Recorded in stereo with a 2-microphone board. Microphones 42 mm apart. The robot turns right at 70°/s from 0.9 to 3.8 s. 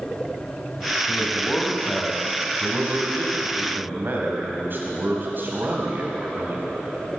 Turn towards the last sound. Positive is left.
turn(degrees=-50)